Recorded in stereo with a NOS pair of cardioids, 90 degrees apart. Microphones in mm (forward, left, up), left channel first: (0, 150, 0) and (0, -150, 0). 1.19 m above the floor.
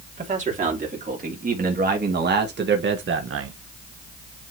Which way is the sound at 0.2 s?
25° right.